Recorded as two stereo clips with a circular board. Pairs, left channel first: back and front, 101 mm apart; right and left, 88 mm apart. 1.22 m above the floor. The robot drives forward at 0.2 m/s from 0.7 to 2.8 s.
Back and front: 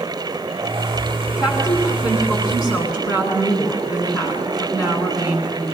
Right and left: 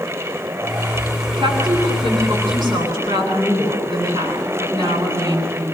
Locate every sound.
1.4 s a woman speaking: 125° left, 10 m; by 5.6 s 130° left, 10 m